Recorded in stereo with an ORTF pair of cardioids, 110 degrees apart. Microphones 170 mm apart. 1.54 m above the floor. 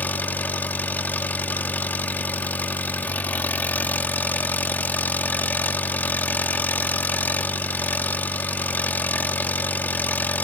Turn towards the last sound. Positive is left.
turn(degrees=10)